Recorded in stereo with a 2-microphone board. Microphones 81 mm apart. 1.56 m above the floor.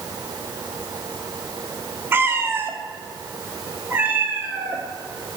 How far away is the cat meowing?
About 0.8 m.